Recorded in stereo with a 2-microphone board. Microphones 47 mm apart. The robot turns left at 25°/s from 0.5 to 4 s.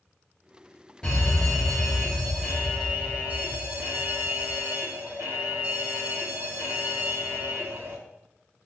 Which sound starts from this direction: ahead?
A fire alarm, at 1.0 s.